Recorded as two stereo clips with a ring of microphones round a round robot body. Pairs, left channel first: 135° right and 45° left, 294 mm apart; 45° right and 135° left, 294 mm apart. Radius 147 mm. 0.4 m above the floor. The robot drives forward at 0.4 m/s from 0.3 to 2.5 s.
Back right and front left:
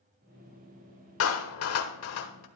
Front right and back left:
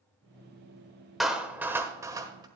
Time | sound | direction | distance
1.2 | a clap | 135° right | 1.2 m